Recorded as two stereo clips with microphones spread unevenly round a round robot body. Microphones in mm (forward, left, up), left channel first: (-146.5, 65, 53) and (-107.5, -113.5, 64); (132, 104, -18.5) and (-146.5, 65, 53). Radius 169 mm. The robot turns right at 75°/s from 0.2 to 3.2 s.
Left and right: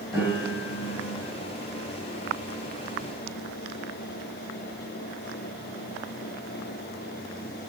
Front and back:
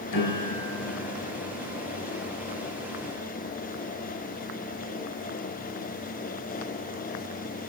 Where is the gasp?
No gasp in this recording.